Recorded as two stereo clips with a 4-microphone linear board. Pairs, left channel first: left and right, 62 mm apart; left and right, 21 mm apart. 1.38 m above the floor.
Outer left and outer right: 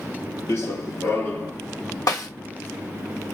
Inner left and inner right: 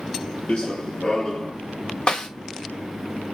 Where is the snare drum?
70° left (ahead or behind), 2.5 m.